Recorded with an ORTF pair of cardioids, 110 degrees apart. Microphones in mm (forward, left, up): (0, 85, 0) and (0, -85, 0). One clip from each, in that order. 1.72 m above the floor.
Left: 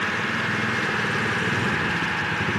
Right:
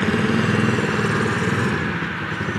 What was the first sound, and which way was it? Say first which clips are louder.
A motorcycle: right 3 dB; 70° right.